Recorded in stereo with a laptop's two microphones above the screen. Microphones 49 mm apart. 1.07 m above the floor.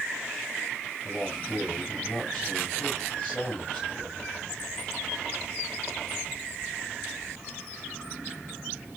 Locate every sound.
1.0 s a man speaking: 15° left (ahead or behind), 6 m